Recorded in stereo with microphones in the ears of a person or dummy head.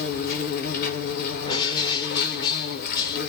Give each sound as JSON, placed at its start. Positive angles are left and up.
{"t": 0.0, "sound": "an insect", "side_deg": 55, "distance_m": 0.8}
{"t": 1.4, "sound": "a bird", "side_deg": 25, "distance_m": 0.6}